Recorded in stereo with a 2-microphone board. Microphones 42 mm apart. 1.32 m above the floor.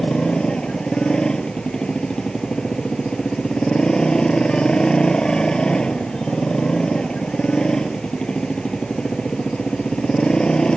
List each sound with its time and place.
0.0 s a motorcycle: 20° left (ahead or behind)